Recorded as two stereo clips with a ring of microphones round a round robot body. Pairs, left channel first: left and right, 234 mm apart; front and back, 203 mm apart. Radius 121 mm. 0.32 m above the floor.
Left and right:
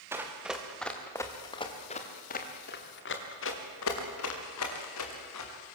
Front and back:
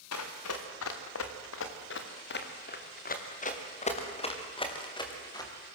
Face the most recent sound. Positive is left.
turn(degrees=70)